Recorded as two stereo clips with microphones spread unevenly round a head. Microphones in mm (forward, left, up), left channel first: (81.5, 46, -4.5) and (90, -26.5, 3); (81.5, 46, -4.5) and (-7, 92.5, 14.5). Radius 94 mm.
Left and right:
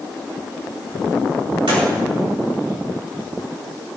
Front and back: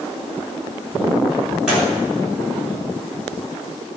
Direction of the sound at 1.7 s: 120° right.